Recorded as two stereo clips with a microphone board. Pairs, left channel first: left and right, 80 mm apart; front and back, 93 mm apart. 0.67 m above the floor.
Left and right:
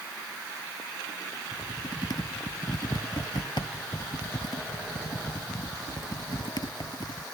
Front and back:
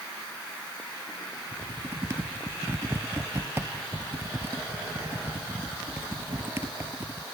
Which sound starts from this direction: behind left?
Typing on a keyboard, at 1.5 s.